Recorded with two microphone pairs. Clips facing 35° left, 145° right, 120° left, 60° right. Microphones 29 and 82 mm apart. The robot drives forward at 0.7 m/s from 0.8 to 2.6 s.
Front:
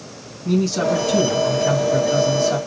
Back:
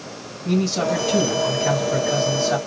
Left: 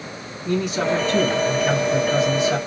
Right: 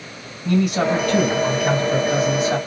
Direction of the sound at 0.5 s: 65° right.